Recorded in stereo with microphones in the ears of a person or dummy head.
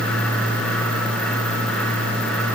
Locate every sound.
Only background noise.